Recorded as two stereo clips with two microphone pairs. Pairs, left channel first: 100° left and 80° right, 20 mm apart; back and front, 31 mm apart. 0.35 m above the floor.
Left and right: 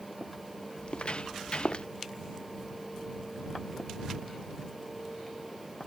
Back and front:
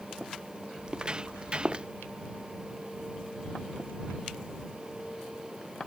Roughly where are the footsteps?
Ahead left.